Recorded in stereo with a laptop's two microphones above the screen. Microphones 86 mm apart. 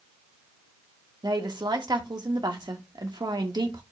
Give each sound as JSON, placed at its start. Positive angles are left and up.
{"t": 1.2, "sound": "a woman speaking", "side_deg": -55, "distance_m": 1.7}